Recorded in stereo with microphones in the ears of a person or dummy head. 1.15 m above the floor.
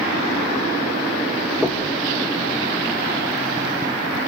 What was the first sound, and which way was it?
Knocking, centre (ahead or behind).